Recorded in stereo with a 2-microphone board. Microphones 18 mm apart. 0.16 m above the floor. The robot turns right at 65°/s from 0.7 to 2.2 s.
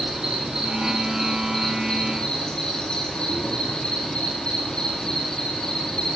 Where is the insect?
50° right, 5 m; by 6.2 s 50° left, 5 m.